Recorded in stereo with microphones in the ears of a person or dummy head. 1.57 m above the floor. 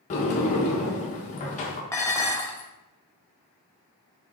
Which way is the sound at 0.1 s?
40° left (ahead or behind).